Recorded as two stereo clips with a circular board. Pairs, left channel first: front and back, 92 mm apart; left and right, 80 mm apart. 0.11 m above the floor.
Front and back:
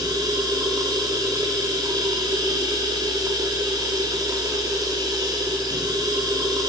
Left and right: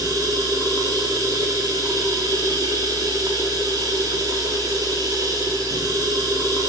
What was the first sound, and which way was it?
Running water, 130° right.